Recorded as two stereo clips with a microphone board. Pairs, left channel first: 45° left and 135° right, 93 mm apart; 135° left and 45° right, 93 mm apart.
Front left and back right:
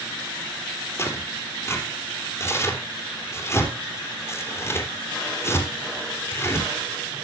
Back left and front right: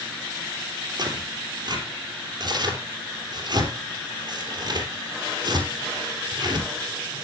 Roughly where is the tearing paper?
Ahead.